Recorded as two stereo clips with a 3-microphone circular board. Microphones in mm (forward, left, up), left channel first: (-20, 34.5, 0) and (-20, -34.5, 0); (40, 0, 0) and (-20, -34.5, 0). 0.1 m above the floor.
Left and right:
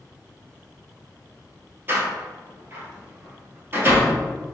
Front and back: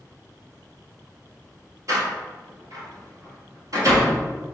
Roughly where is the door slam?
Behind right.